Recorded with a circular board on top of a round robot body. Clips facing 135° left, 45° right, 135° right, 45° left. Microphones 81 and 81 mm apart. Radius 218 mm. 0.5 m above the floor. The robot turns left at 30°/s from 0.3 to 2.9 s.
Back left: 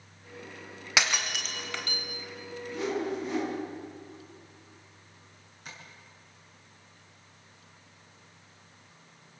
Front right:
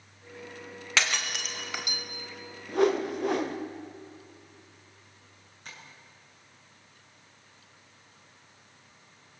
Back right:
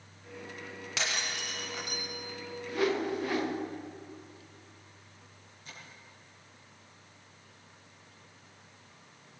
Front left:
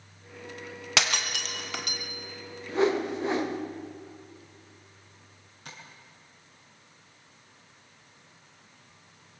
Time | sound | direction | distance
1.0 | breaking glass | 60° left | 2 m
2.7 | a whoosh | 15° right | 2.5 m
5.7 | tapping | 50° left | 7.5 m